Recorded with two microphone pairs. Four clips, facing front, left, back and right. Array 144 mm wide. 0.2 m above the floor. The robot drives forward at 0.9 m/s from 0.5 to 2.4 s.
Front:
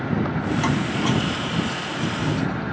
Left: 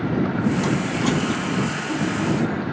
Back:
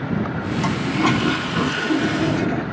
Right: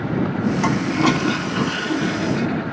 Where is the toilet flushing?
85° right; by 2.6 s 160° right.